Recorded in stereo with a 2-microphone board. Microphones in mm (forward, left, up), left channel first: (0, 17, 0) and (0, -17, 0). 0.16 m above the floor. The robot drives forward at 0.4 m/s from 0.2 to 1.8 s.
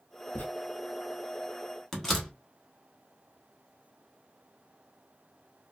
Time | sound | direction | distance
0.3 | writing | 65° left (ahead or behind) | 0.9 m
1.9 | a door slam | 10° left (ahead or behind) | 0.9 m